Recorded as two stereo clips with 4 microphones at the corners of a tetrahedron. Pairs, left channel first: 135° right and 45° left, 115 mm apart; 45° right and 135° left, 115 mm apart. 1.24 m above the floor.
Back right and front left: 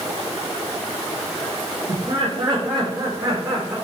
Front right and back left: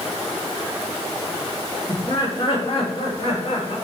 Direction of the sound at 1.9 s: 5° left.